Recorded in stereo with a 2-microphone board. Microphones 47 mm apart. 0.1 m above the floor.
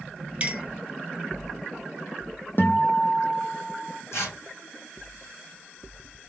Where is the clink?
30° right (ahead or behind), 0.7 m.